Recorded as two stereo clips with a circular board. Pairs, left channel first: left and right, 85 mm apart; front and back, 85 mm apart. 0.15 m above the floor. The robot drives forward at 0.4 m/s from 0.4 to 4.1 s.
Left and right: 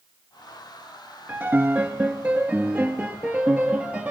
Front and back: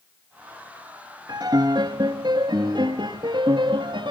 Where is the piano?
155° right, 1.6 m; by 4.1 s 170° right, 2.5 m.